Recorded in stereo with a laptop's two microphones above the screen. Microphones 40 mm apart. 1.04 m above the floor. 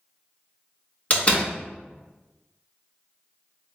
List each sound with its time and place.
1.1 s a door slam: 35° left (ahead or behind), 0.9 m